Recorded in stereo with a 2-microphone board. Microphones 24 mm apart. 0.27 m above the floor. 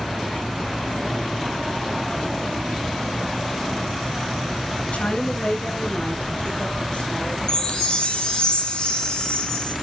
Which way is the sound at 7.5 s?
45° left (ahead or behind).